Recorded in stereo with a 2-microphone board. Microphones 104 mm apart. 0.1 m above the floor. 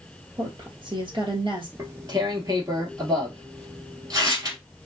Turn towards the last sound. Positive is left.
turn(degrees=-35)  # may be behind; listen again after turning